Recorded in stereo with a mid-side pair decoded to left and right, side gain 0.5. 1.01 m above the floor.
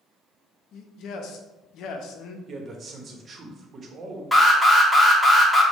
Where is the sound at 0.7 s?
70° left, 0.7 m.